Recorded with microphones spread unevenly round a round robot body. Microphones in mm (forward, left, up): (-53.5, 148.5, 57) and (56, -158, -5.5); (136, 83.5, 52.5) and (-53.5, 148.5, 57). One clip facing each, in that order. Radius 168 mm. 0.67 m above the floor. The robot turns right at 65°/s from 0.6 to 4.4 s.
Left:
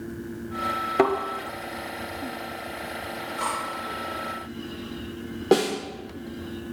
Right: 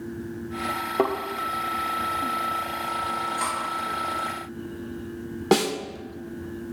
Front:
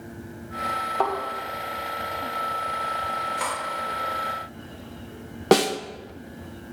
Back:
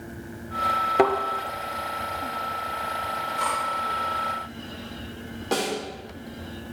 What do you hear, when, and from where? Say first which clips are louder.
1.0 s a thud: left 3 dB, back 7 dB; 165° left, 1.4 m; by 1.1 s 175° left, 1.4 m
3.4 s cutlery clinking: left 1 dB, back 2 dB; 5° right, 7 m; by 3.6 s 5° left, 7 m
5.5 s a snare drum: left 1 dB, front 8 dB; 5° right, 1.0 m